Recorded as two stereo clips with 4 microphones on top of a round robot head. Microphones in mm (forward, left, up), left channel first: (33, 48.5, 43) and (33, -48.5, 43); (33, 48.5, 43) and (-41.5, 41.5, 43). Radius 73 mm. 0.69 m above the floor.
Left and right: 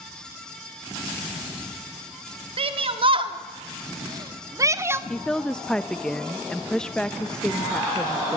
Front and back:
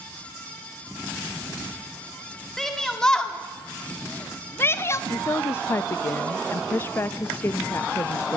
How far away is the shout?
About 2 m.